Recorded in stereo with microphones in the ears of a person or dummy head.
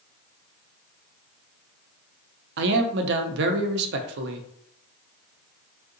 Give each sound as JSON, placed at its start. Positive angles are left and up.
{"t": 2.6, "sound": "a man speaking", "side_deg": -65, "distance_m": 0.5}